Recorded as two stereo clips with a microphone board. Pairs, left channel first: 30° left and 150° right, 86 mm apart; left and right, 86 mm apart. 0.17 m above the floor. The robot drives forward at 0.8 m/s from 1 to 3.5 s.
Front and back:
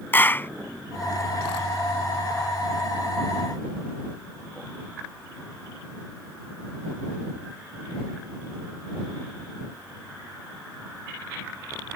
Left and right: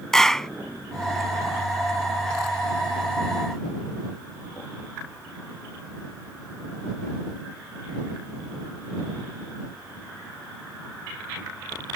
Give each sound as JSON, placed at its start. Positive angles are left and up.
{"t": 0.1, "sound": "a clap", "azimuth_deg": 10}